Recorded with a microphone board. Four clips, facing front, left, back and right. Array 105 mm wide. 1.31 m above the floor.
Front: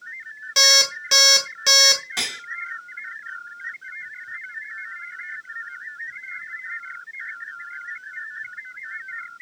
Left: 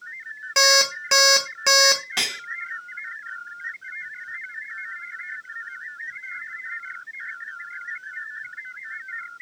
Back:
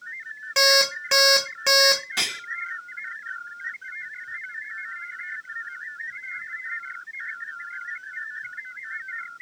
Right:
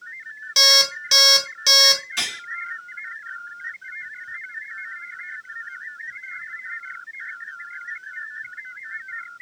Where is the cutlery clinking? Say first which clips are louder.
Left 1 dB, even; 80° left, 1.4 m.